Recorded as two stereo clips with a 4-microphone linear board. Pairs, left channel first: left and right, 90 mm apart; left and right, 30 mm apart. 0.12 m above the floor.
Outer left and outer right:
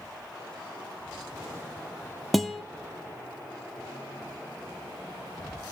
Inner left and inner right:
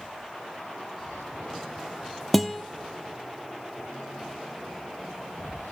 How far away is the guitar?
About 1.1 m.